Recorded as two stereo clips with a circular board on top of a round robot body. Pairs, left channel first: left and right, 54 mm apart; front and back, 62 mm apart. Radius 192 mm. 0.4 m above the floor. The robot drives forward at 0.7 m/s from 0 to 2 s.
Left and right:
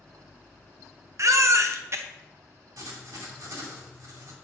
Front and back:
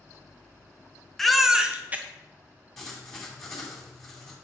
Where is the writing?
85° right, 2.5 m.